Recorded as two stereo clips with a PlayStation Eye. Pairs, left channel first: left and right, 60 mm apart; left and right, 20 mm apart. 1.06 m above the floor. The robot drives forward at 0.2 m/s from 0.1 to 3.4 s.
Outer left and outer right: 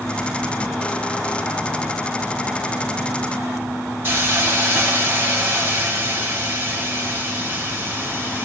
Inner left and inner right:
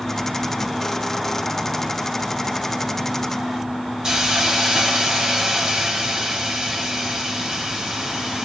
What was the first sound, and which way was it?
A hiss, 35° right (ahead or behind).